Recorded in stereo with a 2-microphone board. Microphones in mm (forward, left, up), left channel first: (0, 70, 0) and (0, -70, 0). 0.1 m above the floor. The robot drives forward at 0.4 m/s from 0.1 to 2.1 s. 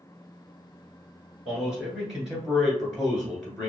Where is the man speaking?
5° right (ahead or behind), 1.5 m.